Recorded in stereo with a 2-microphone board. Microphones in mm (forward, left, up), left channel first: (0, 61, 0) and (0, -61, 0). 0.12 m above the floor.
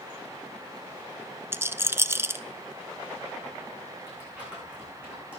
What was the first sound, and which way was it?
A rattle, 20° right (ahead or behind).